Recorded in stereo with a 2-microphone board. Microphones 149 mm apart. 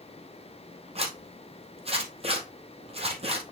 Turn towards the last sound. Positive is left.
turn(degrees=-40)  # may be behind; listen again after turning